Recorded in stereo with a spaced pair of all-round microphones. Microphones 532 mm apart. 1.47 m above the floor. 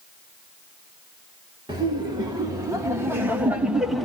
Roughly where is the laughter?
Centre.